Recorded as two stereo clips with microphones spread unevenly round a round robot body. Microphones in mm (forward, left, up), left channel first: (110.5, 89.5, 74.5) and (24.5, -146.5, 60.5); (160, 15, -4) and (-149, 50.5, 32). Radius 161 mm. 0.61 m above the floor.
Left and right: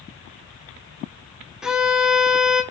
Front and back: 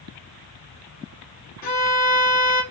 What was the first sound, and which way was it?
A violin, 30° right.